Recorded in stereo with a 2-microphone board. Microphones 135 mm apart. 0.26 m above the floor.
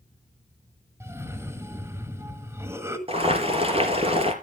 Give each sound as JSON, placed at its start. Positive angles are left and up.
{"t": 1.0, "sound": "a cough", "side_deg": -20, "distance_m": 1.6}
{"t": 3.1, "sound": "boiling", "side_deg": -45, "distance_m": 4.0}